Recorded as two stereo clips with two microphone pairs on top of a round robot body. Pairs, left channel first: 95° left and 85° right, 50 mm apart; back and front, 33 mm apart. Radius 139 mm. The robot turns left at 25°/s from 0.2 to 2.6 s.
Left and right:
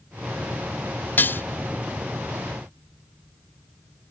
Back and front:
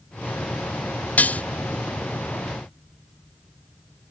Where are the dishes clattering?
150° left; by 1.4 s 140° left.